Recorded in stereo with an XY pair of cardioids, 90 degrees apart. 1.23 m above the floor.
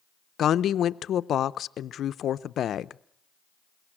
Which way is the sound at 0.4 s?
65° left.